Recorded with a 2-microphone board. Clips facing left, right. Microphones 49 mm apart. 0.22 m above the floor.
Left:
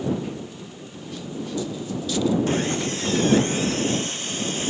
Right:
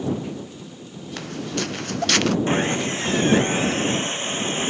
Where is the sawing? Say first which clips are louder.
Right 2 dB; 30° right (ahead or behind).